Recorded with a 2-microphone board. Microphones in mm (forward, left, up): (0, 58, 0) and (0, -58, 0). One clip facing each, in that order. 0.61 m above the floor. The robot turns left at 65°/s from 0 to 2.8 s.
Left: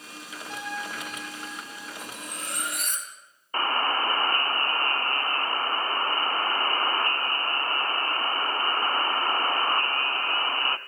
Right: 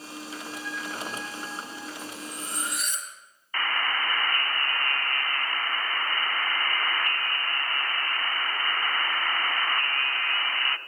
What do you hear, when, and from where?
0.5 s a trumpet: 90° left, 6 m; by 1.9 s straight ahead, 6 m
2.0 s cutlery clinking: 105° left, 3 m; by 3.1 s 55° left, 3 m
3.5 s a buzzer: 30° left (ahead or behind), 0.7 m